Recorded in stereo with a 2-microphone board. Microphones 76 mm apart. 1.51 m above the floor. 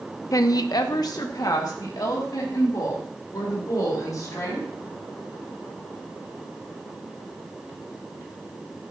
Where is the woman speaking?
50° left (ahead or behind), 0.6 m; by 4.7 s 55° left (ahead or behind), 6 m.